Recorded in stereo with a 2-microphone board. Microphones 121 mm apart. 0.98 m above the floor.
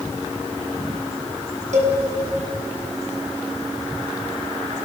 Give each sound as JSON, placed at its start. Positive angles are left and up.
{"t": 1.7, "sound": "a cowbell", "side_deg": -80, "distance_m": 4.5}